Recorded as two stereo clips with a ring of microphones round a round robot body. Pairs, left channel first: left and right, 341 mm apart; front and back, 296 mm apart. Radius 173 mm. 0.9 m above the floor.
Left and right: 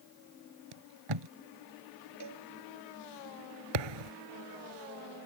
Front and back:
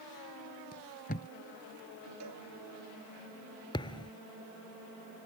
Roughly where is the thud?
Right.